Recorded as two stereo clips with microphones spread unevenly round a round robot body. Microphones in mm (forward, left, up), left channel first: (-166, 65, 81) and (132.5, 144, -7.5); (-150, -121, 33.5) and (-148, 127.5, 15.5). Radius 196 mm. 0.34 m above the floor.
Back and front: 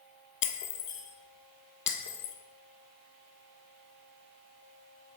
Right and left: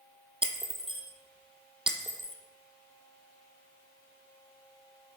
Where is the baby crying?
No baby crying in this recording.